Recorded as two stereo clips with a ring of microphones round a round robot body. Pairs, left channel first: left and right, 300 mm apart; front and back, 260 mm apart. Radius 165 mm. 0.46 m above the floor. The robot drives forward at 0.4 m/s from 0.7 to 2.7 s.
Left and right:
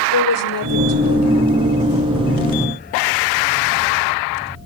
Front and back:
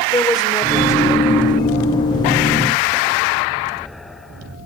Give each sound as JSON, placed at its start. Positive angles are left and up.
{"t": 0.1, "sound": "a woman speaking", "azimuth_deg": 75, "distance_m": 2.0}